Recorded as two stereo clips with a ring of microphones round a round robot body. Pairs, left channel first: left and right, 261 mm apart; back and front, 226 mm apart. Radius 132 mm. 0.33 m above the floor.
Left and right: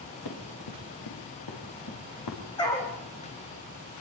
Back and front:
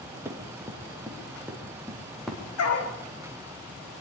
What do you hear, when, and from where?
0.2 s running footsteps: 80° left, 6.5 m; by 2.4 s 90° left, 7.5 m
2.6 s a dog barking: 165° left, 4.5 m